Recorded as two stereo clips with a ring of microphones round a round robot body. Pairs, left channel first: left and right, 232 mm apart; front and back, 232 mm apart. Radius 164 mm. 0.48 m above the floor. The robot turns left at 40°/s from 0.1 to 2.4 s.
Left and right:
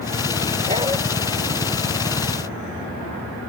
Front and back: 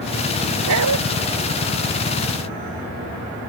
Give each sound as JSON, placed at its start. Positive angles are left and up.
{"t": 0.7, "sound": "a dog barking", "azimuth_deg": -160}